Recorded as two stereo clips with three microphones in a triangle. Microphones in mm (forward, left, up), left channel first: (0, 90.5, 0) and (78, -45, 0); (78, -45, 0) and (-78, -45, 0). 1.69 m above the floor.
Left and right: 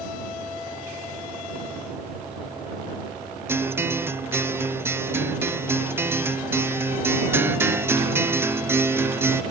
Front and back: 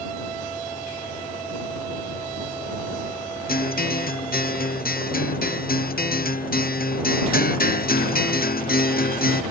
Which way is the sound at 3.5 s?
15° left.